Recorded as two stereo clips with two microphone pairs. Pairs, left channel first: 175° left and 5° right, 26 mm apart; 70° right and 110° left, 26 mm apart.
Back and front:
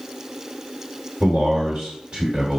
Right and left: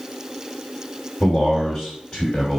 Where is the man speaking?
20° right, 1.4 m.